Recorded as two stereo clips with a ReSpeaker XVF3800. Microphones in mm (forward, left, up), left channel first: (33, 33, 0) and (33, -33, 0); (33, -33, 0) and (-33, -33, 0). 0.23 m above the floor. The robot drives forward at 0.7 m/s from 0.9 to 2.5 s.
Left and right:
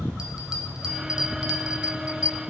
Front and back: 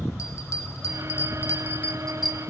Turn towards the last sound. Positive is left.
turn(degrees=-135)